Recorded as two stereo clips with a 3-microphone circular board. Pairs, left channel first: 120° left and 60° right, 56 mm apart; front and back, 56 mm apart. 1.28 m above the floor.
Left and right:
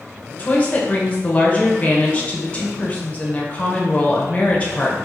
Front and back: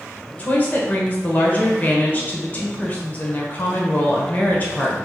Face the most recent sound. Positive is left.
turn(degrees=55)